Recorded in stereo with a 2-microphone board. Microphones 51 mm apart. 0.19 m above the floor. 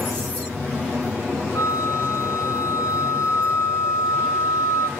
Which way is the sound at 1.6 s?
70° left (ahead or behind).